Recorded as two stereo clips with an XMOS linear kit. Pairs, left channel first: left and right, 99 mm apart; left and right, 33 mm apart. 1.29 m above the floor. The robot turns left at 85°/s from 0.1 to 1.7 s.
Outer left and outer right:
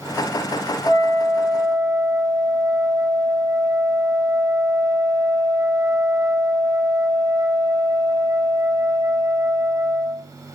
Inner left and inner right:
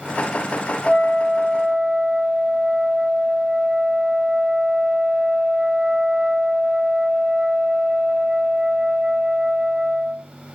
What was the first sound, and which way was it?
A flute, 40° left.